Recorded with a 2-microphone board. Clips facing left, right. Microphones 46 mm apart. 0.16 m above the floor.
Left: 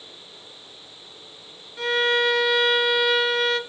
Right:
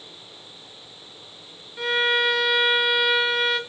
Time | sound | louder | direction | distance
1.8 | a violin | even | 5° right (ahead or behind) | 1.1 m